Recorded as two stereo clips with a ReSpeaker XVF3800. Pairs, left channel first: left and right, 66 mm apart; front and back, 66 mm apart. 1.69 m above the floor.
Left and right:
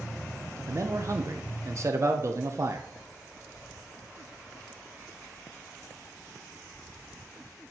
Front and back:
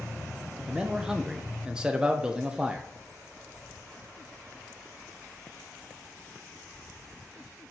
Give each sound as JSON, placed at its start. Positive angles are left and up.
{"t": 0.7, "sound": "a man speaking", "azimuth_deg": -110, "distance_m": 0.8}